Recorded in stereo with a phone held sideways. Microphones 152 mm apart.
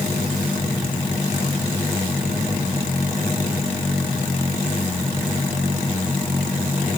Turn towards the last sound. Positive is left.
No sound to turn to.